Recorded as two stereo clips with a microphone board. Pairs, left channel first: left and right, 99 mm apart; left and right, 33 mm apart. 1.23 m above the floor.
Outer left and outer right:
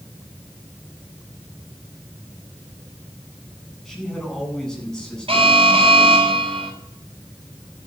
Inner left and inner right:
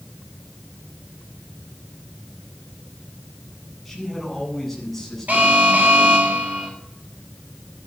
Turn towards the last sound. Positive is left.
turn(degrees=-75)  # may be behind; listen again after turning